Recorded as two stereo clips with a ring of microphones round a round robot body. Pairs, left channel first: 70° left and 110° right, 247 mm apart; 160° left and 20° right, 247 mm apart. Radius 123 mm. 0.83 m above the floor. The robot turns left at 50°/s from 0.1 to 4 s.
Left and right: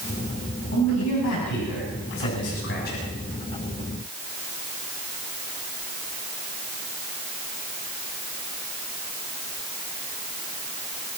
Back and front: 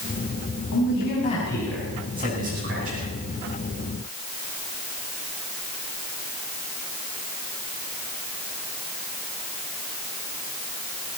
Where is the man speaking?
120° left, 7.5 m; by 3.0 s 5° left, 7.5 m.